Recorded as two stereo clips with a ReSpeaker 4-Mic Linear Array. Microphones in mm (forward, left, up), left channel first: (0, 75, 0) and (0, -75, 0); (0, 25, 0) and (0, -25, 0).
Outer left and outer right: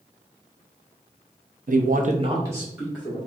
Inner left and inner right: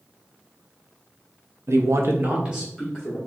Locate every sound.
1.7 s a man speaking: 65° right (ahead or behind), 0.8 m; by 3.2 s centre (ahead or behind), 1.9 m